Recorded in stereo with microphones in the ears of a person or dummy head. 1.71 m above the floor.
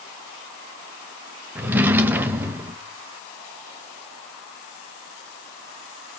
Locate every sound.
1.6 s a drawer: 10° right (ahead or behind), 1.0 m